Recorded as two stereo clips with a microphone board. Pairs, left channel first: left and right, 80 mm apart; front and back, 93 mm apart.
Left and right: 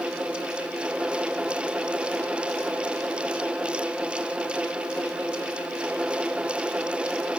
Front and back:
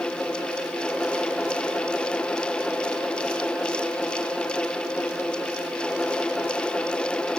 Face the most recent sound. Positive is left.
No sound to turn to.